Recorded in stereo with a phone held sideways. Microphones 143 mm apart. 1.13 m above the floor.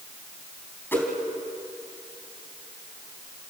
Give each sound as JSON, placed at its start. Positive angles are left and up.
{"t": 0.9, "sound": "a whoosh", "side_deg": 15, "distance_m": 3.5}